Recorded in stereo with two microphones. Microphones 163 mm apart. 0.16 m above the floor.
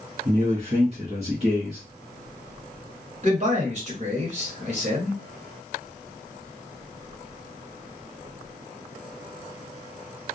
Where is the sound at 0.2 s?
40° right (ahead or behind), 1.5 m.